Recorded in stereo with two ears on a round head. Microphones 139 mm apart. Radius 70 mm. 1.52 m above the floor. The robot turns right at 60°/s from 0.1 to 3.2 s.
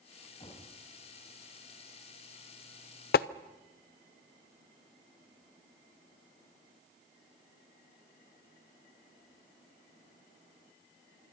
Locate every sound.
0.4 s knocking: 40° left (ahead or behind), 6.5 m; by 0.7 s 25° left (ahead or behind), 6.5 m
3.1 s tapping: 70° left (ahead or behind), 0.5 m